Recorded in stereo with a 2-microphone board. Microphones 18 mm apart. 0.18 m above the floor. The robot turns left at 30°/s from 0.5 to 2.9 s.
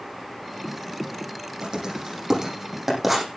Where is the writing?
55° right (ahead or behind), 9.5 m; by 3.3 s 15° right (ahead or behind), 9.5 m.